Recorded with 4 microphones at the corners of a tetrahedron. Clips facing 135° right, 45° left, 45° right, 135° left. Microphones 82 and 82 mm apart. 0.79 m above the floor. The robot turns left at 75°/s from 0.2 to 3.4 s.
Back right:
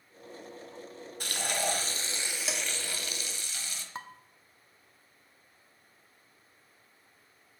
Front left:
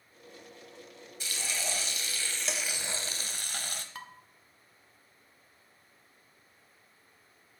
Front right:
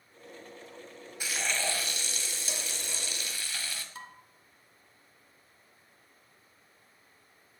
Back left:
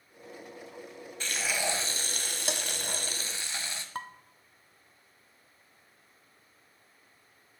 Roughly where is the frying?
Behind right.